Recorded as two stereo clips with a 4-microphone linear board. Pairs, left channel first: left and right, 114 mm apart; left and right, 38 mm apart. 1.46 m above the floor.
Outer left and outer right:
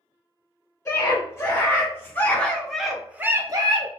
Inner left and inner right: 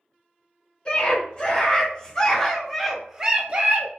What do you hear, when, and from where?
0.8 s a scream: 30° left (ahead or behind), 1.7 m; by 3.9 s 50° right (ahead or behind), 0.6 m